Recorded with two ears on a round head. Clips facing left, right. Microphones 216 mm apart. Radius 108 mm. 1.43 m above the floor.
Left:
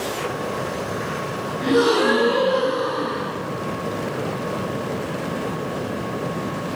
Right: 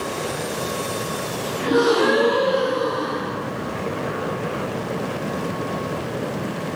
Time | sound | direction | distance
1.6 | a gasp | 45° left (ahead or behind) | 2.5 m